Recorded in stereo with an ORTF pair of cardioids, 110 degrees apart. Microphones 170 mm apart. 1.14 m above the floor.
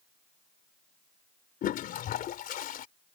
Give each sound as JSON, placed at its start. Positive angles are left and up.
{"t": 1.6, "sound": "a toilet flushing", "azimuth_deg": 60}